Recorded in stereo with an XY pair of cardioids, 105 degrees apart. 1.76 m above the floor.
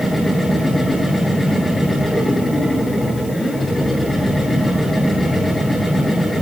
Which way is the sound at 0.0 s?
20° left.